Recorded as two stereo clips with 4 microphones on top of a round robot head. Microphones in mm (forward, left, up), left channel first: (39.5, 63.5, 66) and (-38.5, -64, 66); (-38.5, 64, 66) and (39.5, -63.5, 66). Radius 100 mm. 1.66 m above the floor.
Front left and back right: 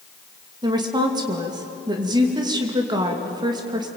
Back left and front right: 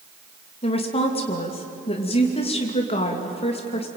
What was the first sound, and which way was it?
A woman speaking, 175° left.